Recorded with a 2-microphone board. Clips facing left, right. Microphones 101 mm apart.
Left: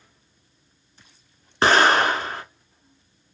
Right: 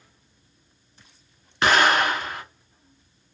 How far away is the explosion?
About 0.7 m.